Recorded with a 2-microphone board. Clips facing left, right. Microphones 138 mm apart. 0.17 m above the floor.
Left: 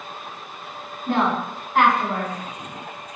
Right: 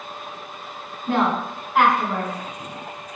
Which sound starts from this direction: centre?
A woman speaking, at 1.1 s.